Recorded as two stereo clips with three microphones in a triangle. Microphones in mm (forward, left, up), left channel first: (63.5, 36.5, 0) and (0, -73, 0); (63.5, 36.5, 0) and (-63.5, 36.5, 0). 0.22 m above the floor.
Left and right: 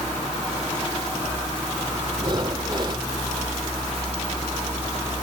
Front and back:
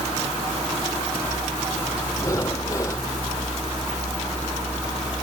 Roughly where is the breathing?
Ahead right.